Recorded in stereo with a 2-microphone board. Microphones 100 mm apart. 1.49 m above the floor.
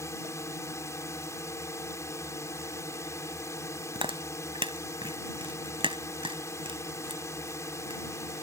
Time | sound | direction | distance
0.0 | a drone | 30° left (ahead or behind) | ?
4.0 | chewing | 60° right (ahead or behind) | ?